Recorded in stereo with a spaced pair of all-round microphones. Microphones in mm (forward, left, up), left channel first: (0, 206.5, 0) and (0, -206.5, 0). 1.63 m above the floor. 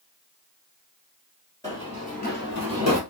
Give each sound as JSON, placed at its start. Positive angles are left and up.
{"t": 1.6, "sound": "running footsteps", "side_deg": 10, "distance_m": 2.0}